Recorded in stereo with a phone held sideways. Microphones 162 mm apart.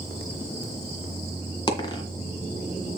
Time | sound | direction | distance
1.7 | a dropped coin | 25° left (ahead or behind) | 1.9 m